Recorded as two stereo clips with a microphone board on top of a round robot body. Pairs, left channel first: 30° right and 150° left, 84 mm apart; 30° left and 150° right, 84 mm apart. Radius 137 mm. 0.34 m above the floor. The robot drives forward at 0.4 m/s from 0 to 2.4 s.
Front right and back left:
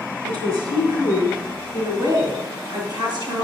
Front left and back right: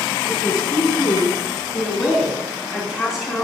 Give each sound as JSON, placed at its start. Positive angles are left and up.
{"t": 0.2, "sound": "a woman speaking", "azimuth_deg": 110, "distance_m": 3.0}